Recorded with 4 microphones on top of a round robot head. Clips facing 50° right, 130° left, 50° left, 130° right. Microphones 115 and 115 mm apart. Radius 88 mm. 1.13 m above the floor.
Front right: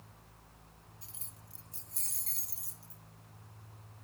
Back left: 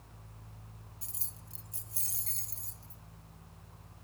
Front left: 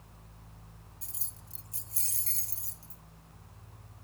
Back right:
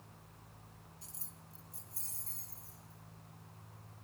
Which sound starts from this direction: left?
Keys jangling, at 1.0 s.